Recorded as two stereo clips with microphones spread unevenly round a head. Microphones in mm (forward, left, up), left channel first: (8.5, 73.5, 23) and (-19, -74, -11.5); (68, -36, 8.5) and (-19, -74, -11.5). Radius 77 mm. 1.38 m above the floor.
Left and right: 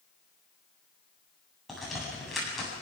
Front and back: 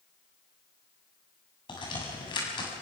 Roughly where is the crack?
Ahead.